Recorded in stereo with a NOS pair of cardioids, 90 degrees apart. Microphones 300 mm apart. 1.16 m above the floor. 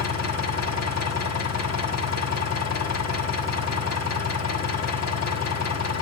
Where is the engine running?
60° left, 1.6 m.